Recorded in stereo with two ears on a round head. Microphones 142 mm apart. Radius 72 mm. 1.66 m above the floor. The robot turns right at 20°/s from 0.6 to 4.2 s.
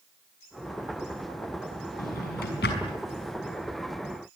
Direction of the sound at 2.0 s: 55° left (ahead or behind).